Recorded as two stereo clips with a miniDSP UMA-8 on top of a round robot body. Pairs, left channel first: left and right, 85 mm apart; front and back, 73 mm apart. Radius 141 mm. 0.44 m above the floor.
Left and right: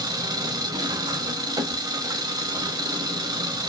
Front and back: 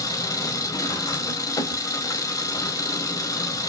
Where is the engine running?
45° right, 0.9 m.